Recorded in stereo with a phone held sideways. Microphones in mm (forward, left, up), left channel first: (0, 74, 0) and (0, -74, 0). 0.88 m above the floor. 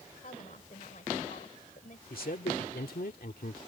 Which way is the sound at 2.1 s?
70° left (ahead or behind).